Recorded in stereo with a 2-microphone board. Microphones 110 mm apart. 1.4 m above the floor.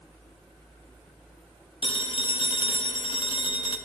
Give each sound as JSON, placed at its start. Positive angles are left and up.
{"t": 1.8, "sound": "a phone ringing", "side_deg": 50, "distance_m": 0.5}